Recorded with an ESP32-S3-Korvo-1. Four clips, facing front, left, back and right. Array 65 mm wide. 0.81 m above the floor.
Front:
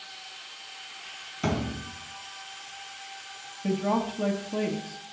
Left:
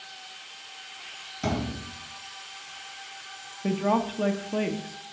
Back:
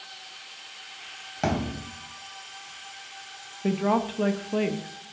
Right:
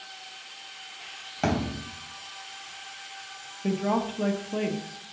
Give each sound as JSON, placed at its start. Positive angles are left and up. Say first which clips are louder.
{"t": 1.4, "sound": "a thud", "louder": "right 2 dB, back 2 dB", "azimuth_deg": -135, "distance_m": 3.0}
{"t": 3.6, "sound": "a woman speaking", "louder": "left 1 dB, back 2 dB", "azimuth_deg": 160, "distance_m": 1.0}